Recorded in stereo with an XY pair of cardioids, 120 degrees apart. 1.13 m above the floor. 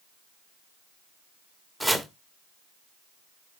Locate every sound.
1.8 s chopping: 5° right, 1.7 m